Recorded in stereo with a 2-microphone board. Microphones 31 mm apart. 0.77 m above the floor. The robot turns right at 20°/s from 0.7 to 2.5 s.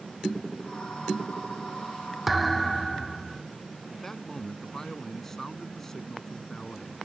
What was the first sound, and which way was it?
A thud, 5° right (ahead or behind).